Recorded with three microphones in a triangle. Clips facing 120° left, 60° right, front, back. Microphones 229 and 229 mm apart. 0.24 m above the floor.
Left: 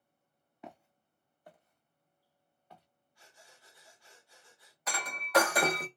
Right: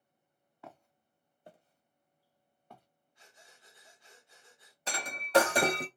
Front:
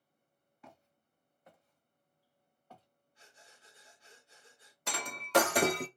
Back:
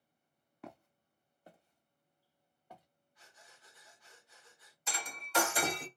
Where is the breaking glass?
5° right, 0.5 m.